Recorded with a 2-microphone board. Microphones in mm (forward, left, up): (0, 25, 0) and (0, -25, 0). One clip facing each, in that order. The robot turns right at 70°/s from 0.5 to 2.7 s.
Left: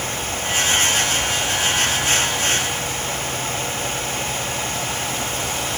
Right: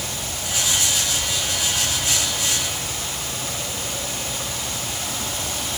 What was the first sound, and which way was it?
Only background noise.